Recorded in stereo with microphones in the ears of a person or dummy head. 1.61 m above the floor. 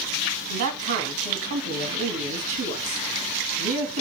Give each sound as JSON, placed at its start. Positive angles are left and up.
{"t": 0.5, "sound": "a man speaking", "side_deg": -70, "distance_m": 2.5}